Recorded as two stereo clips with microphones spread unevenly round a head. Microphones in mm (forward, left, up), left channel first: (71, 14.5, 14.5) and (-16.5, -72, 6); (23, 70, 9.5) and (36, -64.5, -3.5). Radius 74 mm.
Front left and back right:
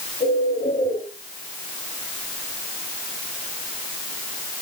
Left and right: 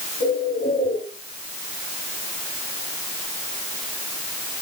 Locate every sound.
0.2 s a bird: 90° left, 5.5 m